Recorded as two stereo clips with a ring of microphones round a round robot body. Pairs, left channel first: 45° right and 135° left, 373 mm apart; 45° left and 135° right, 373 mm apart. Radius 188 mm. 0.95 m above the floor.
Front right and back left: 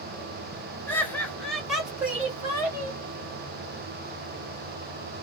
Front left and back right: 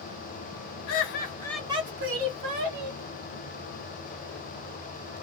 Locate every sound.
0.9 s laughter: 35° left, 0.8 m; by 3.0 s 140° right, 1.2 m